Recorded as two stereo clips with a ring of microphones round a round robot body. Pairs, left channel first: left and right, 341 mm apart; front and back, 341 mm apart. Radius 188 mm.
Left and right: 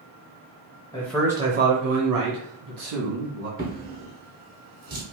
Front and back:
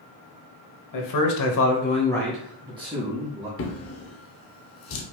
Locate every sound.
0.9 s a man speaking: 10° left, 1.0 m; by 3.5 s 115° right, 1.9 m
3.6 s a drawer: 35° right, 0.7 m